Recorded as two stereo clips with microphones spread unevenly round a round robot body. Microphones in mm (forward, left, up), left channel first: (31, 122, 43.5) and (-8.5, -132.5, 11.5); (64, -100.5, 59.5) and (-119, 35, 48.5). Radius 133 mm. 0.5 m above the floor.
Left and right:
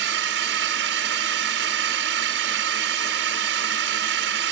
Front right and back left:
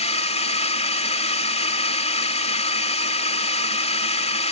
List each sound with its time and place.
0.0 s a drone: 95° right